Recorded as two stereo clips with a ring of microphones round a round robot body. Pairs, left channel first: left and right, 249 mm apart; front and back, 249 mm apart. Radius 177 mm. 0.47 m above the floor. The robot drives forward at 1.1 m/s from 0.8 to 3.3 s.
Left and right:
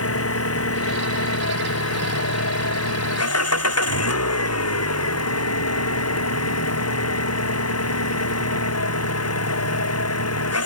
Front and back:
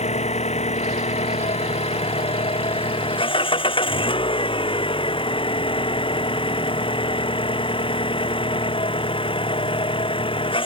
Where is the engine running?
65° left; by 10.7 s 70° left.